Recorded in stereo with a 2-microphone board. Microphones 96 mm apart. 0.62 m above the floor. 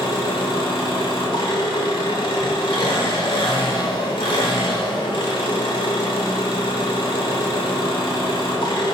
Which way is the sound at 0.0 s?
65° left (ahead or behind).